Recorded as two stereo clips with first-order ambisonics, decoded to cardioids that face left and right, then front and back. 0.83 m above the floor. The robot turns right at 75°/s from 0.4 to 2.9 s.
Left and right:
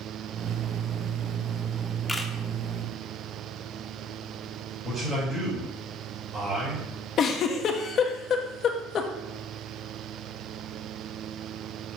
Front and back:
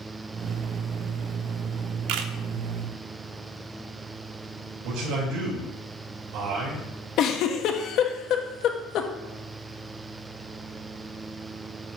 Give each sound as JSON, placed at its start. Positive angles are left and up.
{"t": 2.1, "sound": "a camera shutter", "azimuth_deg": 170, "distance_m": 0.7}
{"t": 4.8, "sound": "a man speaking", "azimuth_deg": -170, "distance_m": 3.0}
{"t": 7.2, "sound": "a giggle", "azimuth_deg": 40, "distance_m": 0.8}